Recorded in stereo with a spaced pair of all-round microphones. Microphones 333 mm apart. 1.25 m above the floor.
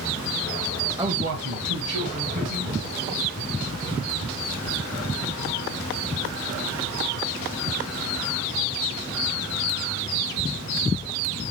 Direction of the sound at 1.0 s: 10° right (ahead or behind).